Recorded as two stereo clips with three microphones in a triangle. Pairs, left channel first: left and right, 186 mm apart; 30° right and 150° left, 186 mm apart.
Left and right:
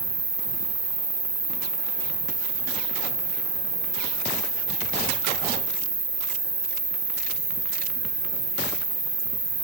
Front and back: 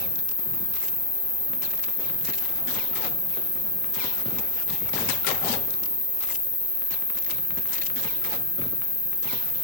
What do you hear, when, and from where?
0.0 s an insect: 145° right, 1.8 m